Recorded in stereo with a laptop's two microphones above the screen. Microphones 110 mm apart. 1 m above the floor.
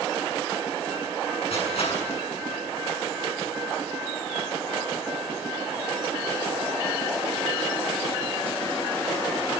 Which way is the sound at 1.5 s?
70° left (ahead or behind).